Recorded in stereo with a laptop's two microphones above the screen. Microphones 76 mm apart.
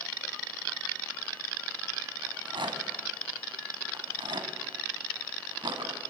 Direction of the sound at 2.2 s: 75° right (ahead or behind).